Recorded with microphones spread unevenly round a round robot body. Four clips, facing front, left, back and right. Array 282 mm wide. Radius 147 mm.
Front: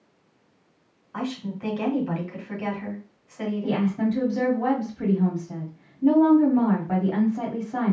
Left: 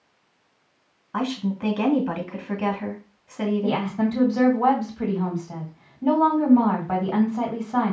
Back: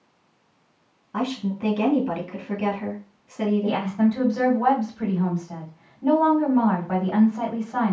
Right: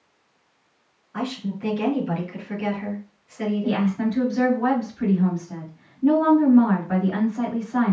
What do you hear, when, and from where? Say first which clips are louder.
1.1 s a woman speaking: left 3 dB, back 4 dB; 120° left, 2.5 m
3.6 s a woman speaking: right 1 dB, back 2 dB; 45° left, 2.5 m